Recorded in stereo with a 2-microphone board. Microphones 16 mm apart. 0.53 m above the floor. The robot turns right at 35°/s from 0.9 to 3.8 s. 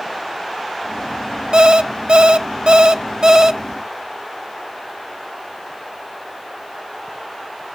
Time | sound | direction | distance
1.5 | an alarm clock | 125° right | 0.8 m